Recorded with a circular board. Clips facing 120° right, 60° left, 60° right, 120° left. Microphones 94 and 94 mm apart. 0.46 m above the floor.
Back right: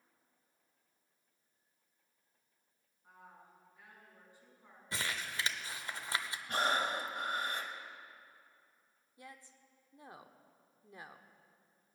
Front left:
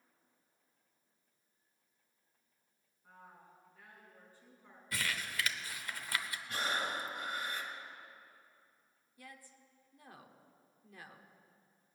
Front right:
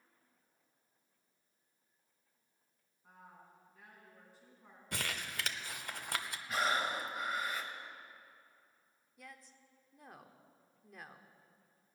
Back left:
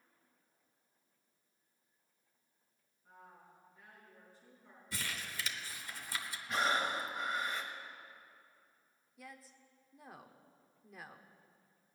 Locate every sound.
3.0 s a woman speaking: 45° right, 5.5 m
4.9 s crumpling: 60° right, 0.7 m
6.5 s breathing: 150° right, 1.4 m
9.2 s a woman speaking: 155° right, 0.8 m